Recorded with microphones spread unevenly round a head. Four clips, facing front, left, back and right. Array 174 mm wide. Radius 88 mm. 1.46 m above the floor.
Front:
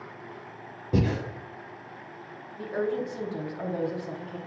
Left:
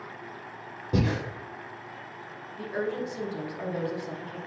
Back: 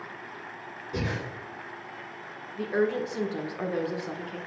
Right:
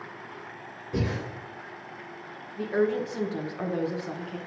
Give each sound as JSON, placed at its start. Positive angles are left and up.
{"t": 0.9, "sound": "breathing", "azimuth_deg": 35, "distance_m": 0.9}
{"t": 2.6, "sound": "a woman speaking", "azimuth_deg": -145, "distance_m": 1.5}